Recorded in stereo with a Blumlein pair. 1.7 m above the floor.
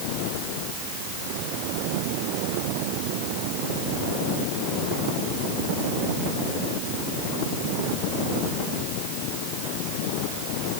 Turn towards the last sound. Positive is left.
No sound to turn to.